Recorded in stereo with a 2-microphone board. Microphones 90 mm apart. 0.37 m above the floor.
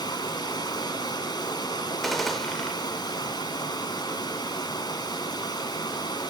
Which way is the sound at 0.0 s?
55° left (ahead or behind).